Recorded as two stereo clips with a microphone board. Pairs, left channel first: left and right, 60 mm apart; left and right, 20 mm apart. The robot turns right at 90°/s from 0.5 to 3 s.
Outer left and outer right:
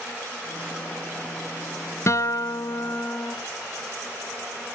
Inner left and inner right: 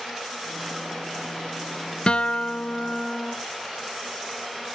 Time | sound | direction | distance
2.1 | a guitar | 55° left | 0.6 m